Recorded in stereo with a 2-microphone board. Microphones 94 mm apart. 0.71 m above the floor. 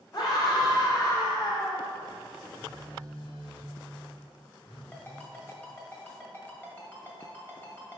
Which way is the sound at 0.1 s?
45° left (ahead or behind).